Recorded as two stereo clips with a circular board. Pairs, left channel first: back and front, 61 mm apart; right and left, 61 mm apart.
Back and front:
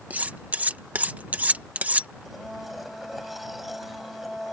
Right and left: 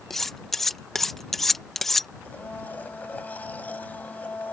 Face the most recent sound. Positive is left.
turn(degrees=-85)